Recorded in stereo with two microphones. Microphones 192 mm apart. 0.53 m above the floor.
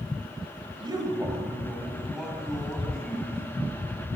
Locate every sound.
0.8 s a man speaking: 25° right (ahead or behind), 2.5 m; by 3.4 s 5° left (ahead or behind), 4.5 m